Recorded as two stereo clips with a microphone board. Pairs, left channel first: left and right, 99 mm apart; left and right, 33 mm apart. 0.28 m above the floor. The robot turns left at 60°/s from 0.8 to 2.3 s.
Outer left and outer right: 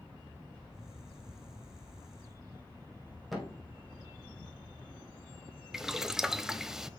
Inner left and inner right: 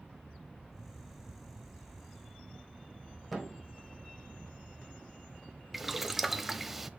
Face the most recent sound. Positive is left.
turn(degrees=-5)  # may be behind; listen again after turning